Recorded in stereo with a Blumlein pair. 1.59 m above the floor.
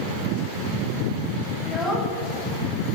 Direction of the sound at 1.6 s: 5° left.